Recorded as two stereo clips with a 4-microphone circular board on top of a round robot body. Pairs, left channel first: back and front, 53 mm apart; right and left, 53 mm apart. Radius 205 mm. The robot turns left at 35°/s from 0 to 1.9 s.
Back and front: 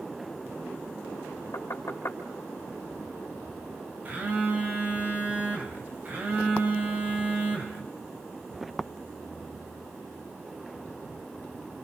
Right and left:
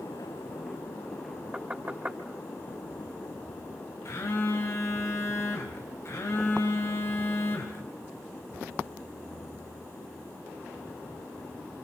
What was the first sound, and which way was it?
Knocking, 155° left.